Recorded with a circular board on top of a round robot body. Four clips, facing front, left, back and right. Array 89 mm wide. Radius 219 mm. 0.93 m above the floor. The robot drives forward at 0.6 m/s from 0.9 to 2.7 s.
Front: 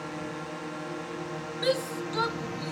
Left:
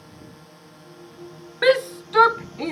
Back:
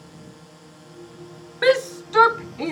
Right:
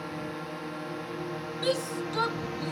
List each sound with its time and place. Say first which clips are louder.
0.0 s a drone: right 10 dB, front 9 dB; 45° right; by 2.7 s 50° right
1.6 s a shout: left 11 dB, back 10 dB; 130° left; by 2.7 s 140° left